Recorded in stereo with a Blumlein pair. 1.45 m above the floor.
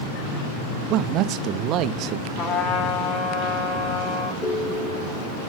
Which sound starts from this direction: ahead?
A ringtone, at 4.4 s.